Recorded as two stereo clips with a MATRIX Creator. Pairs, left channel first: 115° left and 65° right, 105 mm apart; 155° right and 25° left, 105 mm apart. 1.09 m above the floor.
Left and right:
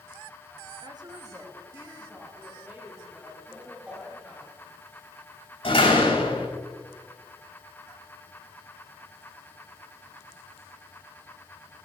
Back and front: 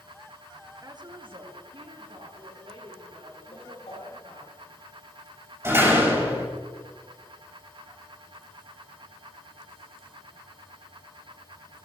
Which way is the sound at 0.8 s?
30° right.